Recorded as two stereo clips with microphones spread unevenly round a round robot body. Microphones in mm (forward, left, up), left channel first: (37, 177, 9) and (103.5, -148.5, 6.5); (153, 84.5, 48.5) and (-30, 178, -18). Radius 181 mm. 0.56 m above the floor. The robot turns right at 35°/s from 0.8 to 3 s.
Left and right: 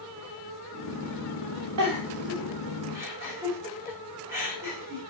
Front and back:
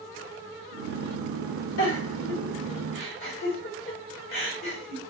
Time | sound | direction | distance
1.8 | a giggle | 40° right | 1.9 m